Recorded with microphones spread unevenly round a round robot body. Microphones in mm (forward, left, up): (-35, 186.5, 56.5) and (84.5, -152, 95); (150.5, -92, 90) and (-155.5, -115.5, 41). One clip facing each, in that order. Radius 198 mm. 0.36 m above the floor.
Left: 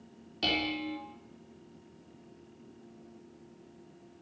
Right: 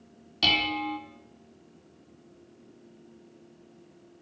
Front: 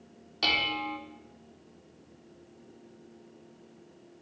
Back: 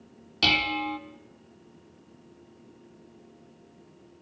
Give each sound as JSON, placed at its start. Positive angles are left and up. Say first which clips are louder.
{"t": 0.4, "sound": "dishes clattering", "louder": "right 1 dB, back 5 dB", "azimuth_deg": -140, "distance_m": 2.5}